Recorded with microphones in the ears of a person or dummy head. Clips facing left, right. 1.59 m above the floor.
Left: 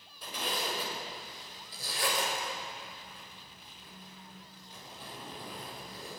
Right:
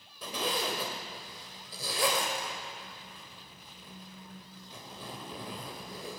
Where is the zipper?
65° right (ahead or behind), 3.5 m.